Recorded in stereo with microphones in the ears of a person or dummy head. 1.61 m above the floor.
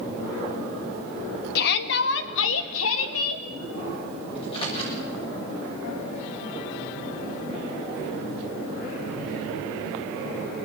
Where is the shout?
55° left (ahead or behind), 2 m; by 3.4 s 85° left, 3 m.